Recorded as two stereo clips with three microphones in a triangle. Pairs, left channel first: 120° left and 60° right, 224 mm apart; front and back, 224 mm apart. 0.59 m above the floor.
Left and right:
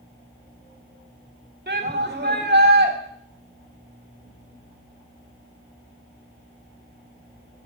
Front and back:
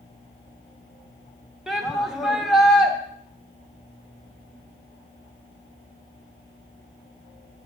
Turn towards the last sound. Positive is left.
turn(degrees=-90)